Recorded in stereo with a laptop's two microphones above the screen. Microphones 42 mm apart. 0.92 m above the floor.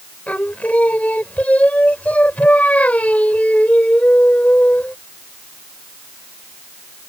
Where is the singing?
35° left (ahead or behind).